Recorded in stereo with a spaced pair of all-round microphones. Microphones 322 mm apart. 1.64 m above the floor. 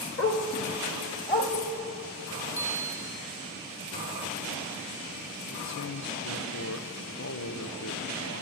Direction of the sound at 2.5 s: 35° left (ahead or behind).